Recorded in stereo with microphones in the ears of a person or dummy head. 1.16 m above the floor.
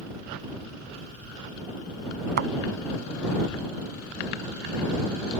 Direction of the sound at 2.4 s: 60° right (ahead or behind).